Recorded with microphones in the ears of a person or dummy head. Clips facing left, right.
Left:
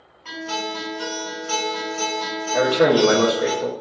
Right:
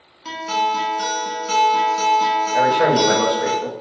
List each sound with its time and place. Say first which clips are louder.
0.2 s a guitar: right 6 dB; 55° right (ahead or behind), 1.1 m
2.5 s a man speaking: left 2 dB; 45° left (ahead or behind), 0.8 m